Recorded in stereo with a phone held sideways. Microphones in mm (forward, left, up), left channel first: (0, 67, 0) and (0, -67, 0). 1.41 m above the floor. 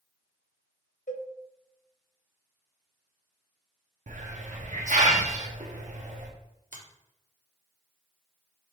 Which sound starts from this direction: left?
A cowbell, at 1.1 s.